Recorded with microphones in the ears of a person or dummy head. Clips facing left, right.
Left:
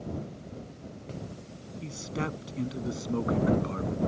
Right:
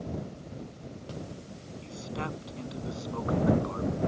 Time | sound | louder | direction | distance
1.8 | a man speaking | left 3 dB | 30° left (ahead or behind) | ?